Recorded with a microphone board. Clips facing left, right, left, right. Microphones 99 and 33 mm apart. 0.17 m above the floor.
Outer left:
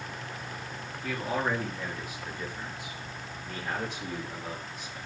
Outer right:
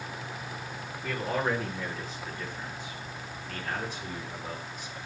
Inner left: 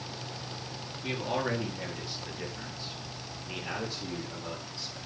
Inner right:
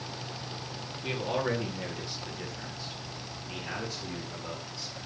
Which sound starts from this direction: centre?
A man speaking, at 1.0 s.